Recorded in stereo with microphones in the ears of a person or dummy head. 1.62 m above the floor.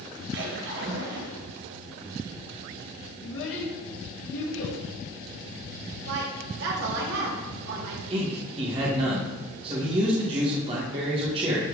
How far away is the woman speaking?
About 2.5 m.